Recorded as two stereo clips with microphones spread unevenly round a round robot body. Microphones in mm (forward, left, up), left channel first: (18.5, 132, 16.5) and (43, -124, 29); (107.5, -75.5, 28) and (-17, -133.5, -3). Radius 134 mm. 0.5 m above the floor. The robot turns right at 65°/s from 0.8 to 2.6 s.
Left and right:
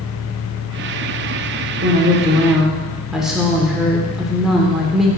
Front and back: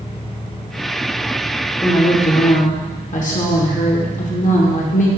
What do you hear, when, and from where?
1.8 s a woman speaking: 45° right, 1.4 m; by 5.1 s 5° left, 1.4 m